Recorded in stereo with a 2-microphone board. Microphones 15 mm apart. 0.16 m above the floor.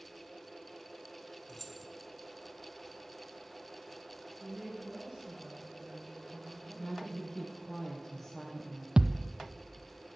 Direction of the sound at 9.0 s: 70° right (ahead or behind).